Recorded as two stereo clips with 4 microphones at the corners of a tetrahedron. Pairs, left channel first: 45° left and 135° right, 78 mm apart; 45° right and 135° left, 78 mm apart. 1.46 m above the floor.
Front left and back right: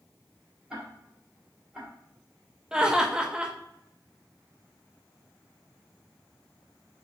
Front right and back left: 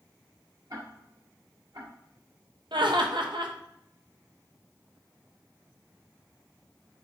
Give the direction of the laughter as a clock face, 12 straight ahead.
7 o'clock.